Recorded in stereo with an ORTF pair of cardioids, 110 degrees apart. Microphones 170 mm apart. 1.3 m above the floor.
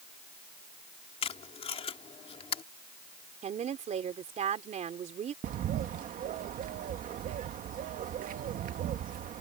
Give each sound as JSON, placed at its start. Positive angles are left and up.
{"t": 1.2, "sound": "tape being pulled", "azimuth_deg": 40}
{"t": 3.4, "sound": "a woman speaking", "azimuth_deg": -45}
{"t": 5.4, "sound": "a bird", "azimuth_deg": -55}